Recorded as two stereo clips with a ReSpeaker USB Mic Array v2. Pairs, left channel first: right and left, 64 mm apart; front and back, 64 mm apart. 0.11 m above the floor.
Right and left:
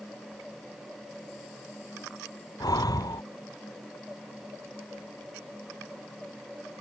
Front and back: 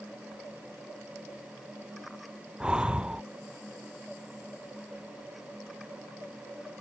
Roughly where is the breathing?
Right.